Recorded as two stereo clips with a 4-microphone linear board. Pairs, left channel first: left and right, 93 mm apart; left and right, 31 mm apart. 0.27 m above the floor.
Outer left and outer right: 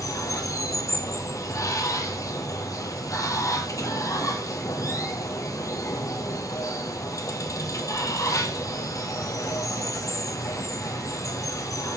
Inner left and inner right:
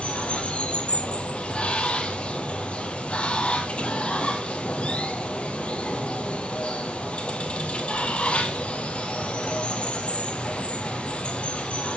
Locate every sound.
0.0 s running water: 35° left (ahead or behind), 1.1 m